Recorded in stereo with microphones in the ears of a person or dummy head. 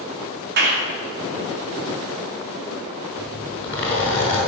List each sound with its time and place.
0.6 s a clap: 50° right (ahead or behind), 2 m
3.2 s a zipper: 10° left (ahead or behind), 5 m